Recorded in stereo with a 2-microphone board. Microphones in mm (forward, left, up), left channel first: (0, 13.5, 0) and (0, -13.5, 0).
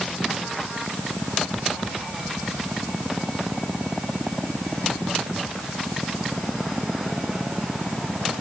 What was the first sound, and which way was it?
Only background noise.